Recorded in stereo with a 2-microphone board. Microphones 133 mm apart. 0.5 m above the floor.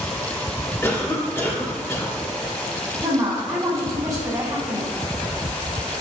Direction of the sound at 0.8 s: 20° left (ahead or behind).